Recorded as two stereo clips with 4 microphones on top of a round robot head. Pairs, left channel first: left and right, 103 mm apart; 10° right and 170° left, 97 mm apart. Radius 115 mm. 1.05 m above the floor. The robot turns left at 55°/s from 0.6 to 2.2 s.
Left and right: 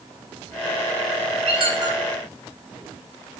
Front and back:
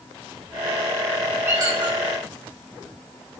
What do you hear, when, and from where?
1.5 s a squeak: 120° right, 9 m; by 2.0 s 150° right, 9 m